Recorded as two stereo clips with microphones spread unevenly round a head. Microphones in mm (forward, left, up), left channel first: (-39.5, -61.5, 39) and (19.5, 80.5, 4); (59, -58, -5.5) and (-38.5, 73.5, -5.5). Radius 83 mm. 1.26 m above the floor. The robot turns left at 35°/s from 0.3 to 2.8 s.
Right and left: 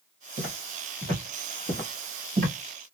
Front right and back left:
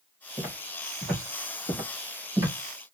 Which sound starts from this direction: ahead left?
Footsteps, at 0.4 s.